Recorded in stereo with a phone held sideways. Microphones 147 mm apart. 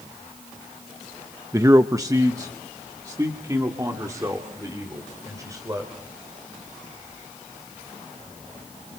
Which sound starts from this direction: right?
A man speaking, at 1.5 s.